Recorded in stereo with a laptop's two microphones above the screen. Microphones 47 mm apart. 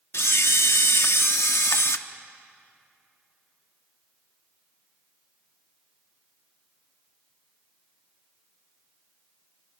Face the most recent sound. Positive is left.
turn(degrees=70)  # may be behind; listen again after turning